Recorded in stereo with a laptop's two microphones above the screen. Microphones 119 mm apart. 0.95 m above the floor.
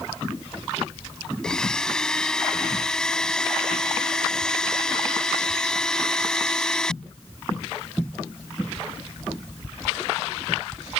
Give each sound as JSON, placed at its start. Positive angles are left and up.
{"t": 1.4, "sound": "a blender", "side_deg": 5}